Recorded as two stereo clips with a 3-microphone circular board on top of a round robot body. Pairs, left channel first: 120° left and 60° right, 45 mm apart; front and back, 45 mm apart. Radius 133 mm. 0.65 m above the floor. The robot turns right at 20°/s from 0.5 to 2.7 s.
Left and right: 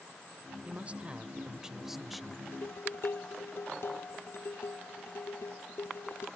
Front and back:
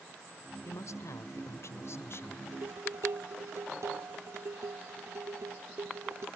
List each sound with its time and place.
0.7 s a man speaking: straight ahead; by 2.4 s 35° left
2.5 s dishes clattering: 155° left